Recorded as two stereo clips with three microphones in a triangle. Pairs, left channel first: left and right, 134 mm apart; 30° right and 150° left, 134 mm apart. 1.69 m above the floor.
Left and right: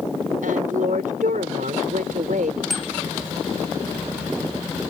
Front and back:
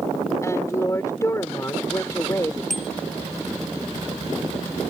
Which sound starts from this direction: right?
A woman speaking, at 0.4 s.